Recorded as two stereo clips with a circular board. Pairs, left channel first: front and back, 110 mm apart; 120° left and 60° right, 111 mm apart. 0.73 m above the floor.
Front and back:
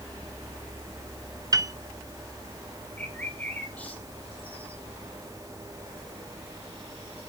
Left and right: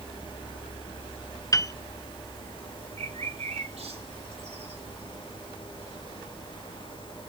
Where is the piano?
150° left, 0.6 m.